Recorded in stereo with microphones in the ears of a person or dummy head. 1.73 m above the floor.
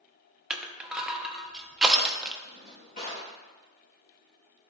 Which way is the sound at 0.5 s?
5° right (ahead or behind).